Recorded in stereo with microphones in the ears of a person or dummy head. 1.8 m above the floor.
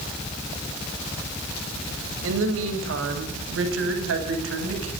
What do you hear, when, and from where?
2.2 s a woman speaking: 85° right, 8 m